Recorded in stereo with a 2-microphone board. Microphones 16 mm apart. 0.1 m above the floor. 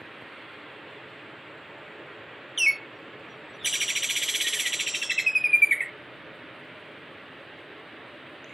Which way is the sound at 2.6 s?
10° right (ahead or behind).